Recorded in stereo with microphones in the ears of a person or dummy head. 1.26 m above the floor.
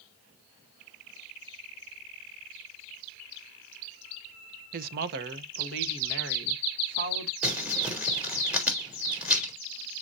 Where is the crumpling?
10° right (ahead or behind), 3 m.